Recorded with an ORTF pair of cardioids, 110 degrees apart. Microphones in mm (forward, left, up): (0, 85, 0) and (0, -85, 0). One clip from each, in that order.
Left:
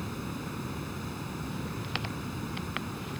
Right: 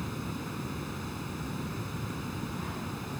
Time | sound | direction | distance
0.0 | running water | straight ahead | ?